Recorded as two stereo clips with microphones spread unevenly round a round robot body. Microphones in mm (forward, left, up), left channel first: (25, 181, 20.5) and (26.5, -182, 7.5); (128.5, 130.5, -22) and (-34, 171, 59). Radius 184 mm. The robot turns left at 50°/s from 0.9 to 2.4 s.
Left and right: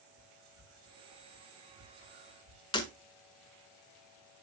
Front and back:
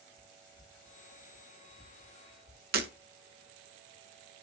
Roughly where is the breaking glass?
Behind.